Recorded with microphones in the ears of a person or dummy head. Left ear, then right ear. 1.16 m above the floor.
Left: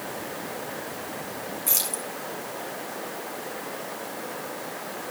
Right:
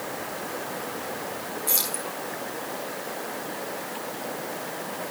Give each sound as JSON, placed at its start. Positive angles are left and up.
{"t": 1.7, "sound": "keys jangling", "side_deg": 55, "distance_m": 7.0}